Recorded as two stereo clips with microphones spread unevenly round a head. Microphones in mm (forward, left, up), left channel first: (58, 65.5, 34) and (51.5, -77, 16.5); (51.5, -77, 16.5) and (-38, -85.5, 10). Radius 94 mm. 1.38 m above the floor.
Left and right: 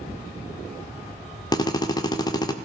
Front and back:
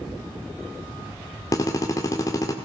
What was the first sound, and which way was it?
A drill, 45° left.